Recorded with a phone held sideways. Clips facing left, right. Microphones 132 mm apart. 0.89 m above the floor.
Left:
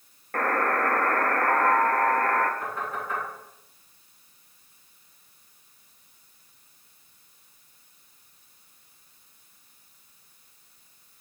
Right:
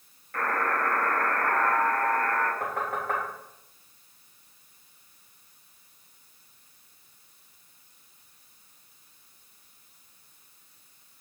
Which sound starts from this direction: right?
Knocking, at 2.6 s.